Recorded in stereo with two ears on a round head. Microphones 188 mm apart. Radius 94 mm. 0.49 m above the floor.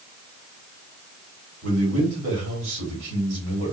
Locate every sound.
1.6 s a man speaking: 60° right (ahead or behind), 2 m